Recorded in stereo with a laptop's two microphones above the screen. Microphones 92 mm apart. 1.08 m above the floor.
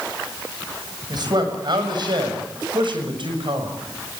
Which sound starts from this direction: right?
A man speaking, at 1.1 s.